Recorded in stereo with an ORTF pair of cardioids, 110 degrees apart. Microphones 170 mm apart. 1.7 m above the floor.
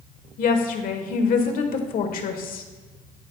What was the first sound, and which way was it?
A woman speaking, 55° left.